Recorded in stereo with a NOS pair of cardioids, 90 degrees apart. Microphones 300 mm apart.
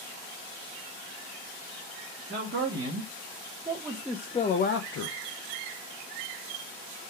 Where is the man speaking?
40° right, 1.7 m; by 5.2 s 70° left, 0.8 m.